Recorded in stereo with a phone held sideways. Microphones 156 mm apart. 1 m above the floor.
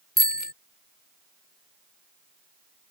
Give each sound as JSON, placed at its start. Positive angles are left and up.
{"t": 0.2, "sound": "a bicycle bell", "side_deg": 85}